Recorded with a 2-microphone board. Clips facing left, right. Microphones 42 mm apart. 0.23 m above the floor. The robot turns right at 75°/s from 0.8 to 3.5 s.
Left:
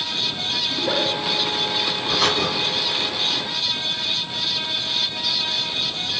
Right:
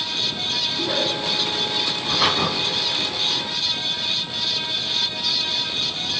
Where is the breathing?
Straight behind, 1.1 m; by 2.5 s 145° right, 1.1 m.